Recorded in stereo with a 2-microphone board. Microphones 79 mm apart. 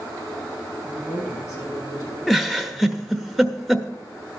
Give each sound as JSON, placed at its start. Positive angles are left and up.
{"t": 0.8, "sound": "a man speaking", "side_deg": 40, "distance_m": 4.5}
{"t": 2.3, "sound": "a giggle", "side_deg": 0, "distance_m": 0.8}